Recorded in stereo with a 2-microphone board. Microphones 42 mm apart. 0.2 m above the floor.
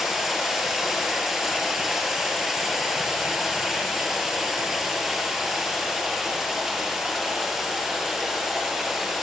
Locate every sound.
0.0 s running water: 5° right (ahead or behind), 3.5 m